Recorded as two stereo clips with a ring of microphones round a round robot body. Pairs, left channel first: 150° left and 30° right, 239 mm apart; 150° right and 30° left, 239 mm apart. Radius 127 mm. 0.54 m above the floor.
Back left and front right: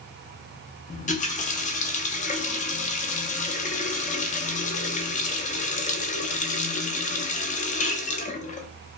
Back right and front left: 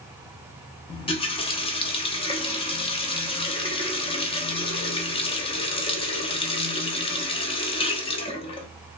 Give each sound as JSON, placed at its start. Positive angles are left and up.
{"t": 0.9, "sound": "a running tap", "azimuth_deg": 165, "distance_m": 0.5}